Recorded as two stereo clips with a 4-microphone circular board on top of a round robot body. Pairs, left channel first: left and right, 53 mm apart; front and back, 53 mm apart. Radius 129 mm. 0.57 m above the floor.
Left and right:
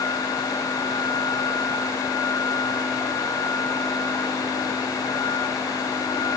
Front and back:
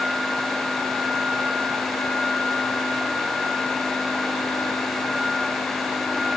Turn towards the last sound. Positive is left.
No sound to turn to.